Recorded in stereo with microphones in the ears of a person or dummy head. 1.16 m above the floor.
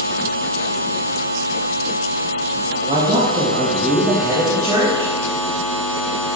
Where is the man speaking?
35° right (ahead or behind), 2 m; by 5.1 s 15° right (ahead or behind), 3 m.